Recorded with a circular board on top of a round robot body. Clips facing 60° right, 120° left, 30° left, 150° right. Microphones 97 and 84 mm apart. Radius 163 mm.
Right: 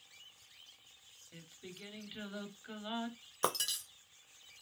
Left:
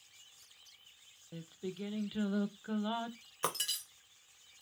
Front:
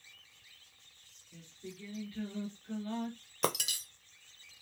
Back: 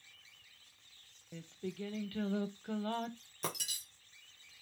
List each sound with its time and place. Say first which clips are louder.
1.3 s singing: left 10 dB, back 6 dB; straight behind, 0.5 m
3.4 s breaking glass: right 2 dB, front 8 dB; 10° left, 0.5 m